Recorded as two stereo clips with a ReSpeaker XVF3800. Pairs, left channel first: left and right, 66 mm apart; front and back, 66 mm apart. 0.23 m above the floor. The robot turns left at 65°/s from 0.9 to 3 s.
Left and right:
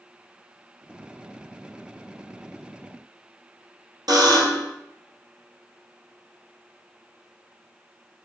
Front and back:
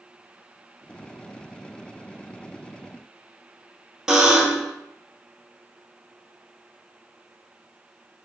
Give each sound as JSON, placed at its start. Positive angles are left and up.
{"t": 4.1, "sound": "a buzzer", "azimuth_deg": -100, "distance_m": 1.0}